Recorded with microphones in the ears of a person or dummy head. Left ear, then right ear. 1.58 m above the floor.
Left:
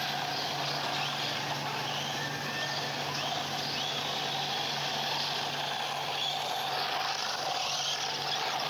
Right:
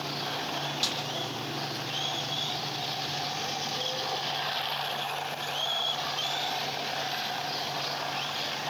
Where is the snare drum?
80° right, 8 m.